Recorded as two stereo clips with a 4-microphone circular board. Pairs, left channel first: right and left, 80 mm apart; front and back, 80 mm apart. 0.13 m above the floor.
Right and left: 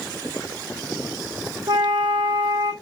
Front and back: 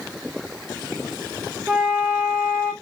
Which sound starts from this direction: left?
A flute, at 1.7 s.